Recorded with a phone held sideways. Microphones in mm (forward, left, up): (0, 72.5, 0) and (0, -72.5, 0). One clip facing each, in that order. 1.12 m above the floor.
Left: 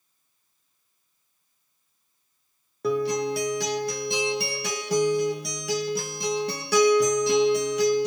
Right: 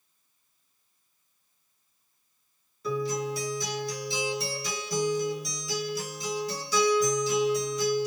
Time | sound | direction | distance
2.8 | a guitar | 70° left (ahead or behind) | 1.0 m